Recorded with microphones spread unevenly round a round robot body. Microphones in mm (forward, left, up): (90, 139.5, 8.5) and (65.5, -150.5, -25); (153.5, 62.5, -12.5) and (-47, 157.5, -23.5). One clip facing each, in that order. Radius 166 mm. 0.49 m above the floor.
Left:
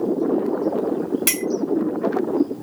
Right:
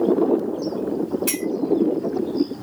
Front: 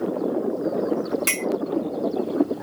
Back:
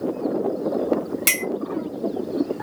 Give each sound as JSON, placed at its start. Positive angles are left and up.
{"t": 1.3, "sound": "a clink", "azimuth_deg": 115, "distance_m": 1.7}